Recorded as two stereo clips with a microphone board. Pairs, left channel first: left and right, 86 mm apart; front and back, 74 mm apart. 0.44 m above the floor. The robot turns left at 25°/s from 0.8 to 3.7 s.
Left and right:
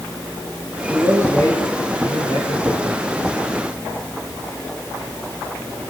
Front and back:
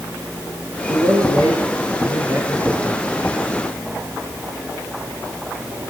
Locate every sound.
0.9 s a man speaking: 155° left, 6.5 m; by 3.1 s 105° left, 6.5 m